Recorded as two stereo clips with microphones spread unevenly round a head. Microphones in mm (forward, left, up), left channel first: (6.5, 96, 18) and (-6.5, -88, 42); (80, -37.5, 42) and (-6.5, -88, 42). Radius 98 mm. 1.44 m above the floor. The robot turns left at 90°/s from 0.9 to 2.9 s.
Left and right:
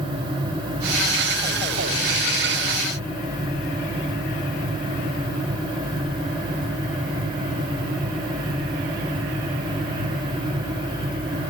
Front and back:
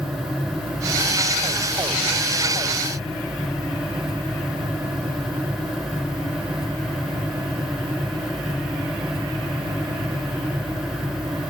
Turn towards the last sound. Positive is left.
No sound to turn to.